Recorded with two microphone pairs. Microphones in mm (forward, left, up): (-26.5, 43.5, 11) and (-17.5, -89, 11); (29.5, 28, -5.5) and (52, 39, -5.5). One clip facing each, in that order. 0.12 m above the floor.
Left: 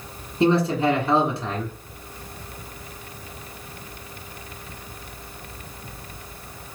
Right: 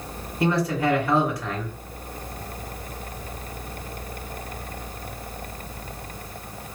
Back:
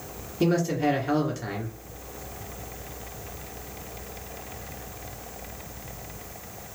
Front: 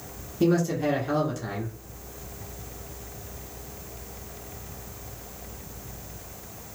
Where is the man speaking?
135° left, 1.7 m.